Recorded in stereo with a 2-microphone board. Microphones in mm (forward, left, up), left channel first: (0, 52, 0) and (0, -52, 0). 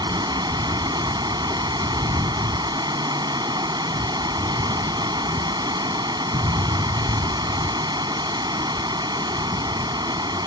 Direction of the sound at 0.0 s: 45° right (ahead or behind).